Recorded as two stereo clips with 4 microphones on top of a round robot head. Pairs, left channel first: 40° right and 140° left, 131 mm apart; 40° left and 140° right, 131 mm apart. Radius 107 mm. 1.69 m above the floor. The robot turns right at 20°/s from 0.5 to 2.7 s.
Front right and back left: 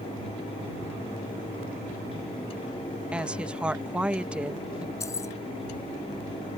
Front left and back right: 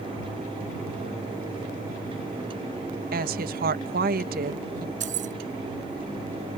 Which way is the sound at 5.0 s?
110° right.